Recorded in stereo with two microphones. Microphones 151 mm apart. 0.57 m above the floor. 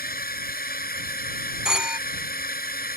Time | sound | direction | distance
0.0 | a drone | 80° left | ?
1.6 | a phone ringing | 5° right (ahead or behind) | ?